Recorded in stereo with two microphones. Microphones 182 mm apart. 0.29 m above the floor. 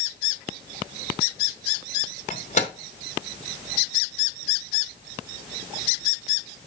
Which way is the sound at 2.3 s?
40° left (ahead or behind).